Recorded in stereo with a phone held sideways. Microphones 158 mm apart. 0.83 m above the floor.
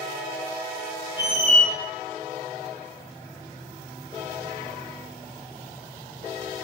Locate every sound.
1.2 s a squeak: 55° right (ahead or behind), 0.7 m